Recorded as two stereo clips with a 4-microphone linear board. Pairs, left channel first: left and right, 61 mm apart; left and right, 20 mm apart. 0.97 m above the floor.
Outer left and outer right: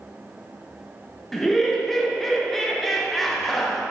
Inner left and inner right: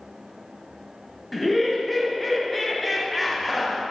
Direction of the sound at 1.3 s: 5° left (ahead or behind).